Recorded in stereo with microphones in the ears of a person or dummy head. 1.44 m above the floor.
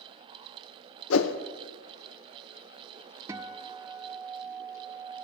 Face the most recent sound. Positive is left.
turn(degrees=-10)  # may be behind; listen again after turning